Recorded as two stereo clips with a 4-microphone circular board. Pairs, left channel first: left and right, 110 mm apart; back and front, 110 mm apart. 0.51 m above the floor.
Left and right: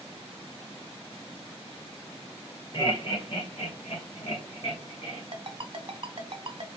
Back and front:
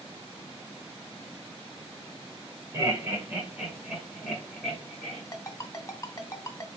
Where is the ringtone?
120° right, 0.9 m.